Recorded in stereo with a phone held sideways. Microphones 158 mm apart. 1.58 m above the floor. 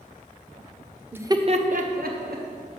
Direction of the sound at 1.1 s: 10° right (ahead or behind).